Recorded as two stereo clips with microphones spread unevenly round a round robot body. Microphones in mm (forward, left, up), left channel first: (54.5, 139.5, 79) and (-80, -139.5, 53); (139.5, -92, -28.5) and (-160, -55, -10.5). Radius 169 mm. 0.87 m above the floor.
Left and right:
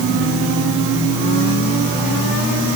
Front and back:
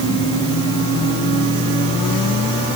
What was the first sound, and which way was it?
Only background noise.